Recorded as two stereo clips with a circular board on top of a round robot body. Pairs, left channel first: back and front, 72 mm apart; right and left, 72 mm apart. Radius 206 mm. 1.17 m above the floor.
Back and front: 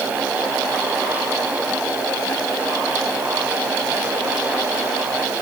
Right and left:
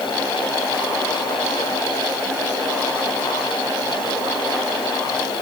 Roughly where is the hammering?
I don't hear hammering.